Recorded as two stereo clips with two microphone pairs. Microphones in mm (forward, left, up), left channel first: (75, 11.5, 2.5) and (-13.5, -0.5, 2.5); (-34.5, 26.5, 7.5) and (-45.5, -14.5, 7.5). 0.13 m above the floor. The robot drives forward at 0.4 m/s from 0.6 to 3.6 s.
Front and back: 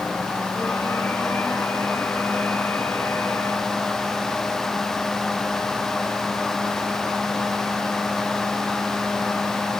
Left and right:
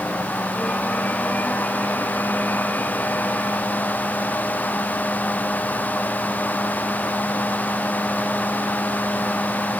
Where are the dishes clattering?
No dishes clattering in this recording.